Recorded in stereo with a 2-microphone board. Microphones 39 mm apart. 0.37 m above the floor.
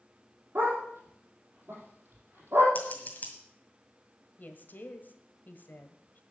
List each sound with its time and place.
0.6 s a dog barking: 65° right (ahead or behind), 5 m
2.8 s scissors: 45° left (ahead or behind), 2 m
4.4 s a woman speaking: 50° left (ahead or behind), 1.4 m